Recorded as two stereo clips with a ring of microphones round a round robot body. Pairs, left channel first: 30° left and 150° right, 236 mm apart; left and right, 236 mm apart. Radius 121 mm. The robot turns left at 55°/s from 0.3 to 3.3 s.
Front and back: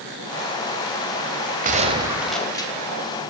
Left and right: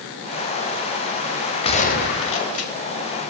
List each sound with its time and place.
1.6 s a gunshot: 155° left, 2 m; by 2.7 s 95° left, 2 m